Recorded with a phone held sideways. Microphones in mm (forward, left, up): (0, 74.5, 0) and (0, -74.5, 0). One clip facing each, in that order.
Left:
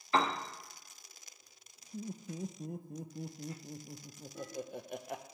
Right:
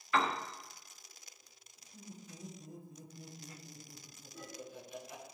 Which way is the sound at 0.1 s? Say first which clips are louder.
Left 2 dB; 30° left (ahead or behind).